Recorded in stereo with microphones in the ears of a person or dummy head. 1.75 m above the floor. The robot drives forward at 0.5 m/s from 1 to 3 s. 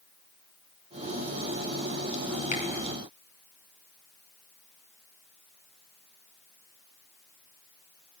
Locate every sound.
2.5 s a finger snap: 55° left (ahead or behind), 6 m